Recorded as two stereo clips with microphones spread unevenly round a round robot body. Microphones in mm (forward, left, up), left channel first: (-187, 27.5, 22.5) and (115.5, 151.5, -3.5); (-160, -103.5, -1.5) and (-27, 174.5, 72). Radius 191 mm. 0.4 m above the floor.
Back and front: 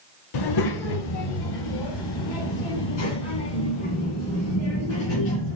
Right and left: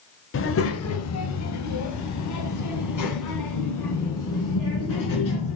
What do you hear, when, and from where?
0.3 s a child speaking: 155° right, 0.9 m; by 5.6 s 130° right, 3.5 m